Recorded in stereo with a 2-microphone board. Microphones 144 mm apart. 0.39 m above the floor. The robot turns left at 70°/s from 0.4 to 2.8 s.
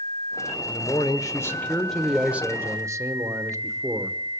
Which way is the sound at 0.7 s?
25° left (ahead or behind).